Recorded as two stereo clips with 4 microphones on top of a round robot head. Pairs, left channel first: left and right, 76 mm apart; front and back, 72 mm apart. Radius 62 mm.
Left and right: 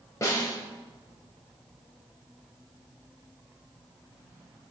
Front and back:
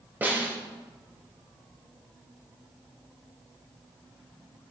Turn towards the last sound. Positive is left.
turn(degrees=125)